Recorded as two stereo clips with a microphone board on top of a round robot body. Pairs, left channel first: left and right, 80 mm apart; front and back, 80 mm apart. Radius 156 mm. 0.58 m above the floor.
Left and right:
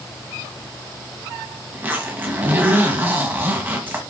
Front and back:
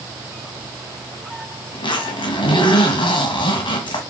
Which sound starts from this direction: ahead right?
A zipper, at 1.7 s.